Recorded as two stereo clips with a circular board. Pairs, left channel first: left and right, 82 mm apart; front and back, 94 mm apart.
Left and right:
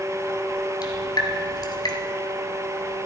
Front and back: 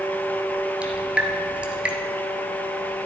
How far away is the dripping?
About 1.6 m.